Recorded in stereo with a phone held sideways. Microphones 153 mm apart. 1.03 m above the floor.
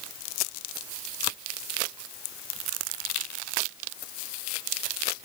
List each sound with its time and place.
Only background noise.